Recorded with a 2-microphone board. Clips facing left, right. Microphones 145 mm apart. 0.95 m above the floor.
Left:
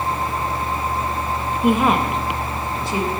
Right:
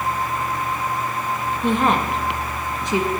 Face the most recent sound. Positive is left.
turn(degrees=-25)  # may be behind; listen again after turning